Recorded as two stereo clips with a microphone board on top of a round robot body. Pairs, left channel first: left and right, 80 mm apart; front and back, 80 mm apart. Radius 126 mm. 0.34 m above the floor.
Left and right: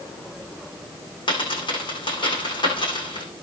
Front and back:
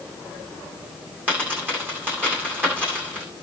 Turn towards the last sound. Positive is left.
turn(degrees=110)